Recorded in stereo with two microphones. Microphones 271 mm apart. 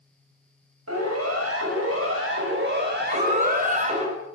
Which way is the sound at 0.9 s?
70° right (ahead or behind).